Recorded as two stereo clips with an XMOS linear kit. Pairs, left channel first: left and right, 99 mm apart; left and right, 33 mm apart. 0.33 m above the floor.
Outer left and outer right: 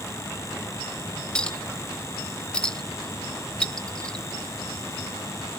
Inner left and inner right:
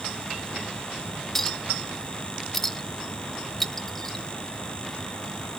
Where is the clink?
10° left (ahead or behind), 0.7 m.